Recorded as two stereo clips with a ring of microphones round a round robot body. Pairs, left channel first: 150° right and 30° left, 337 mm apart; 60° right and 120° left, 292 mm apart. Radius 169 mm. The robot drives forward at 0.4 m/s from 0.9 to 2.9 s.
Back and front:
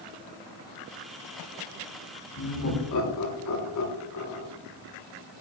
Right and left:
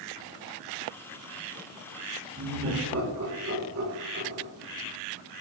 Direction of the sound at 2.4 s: 170° left.